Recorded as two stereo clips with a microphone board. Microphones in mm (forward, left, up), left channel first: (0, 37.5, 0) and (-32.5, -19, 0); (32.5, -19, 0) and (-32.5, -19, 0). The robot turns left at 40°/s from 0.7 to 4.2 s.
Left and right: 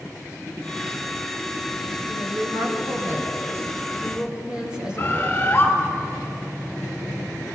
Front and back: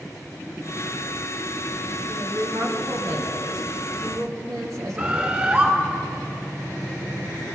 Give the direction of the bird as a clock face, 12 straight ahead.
8 o'clock.